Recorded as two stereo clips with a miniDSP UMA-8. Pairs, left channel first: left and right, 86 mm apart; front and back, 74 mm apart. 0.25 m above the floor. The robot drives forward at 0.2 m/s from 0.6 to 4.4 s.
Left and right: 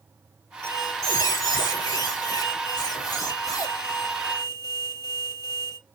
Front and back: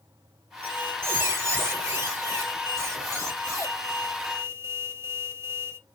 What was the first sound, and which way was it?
A squeak, 125° left.